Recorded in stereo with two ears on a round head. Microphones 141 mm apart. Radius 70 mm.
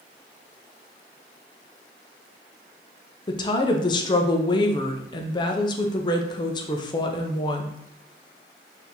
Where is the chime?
No chime in this recording.